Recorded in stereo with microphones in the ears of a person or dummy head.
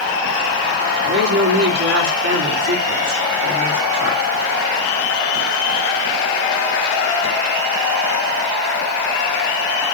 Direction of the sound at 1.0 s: 60° right (ahead or behind).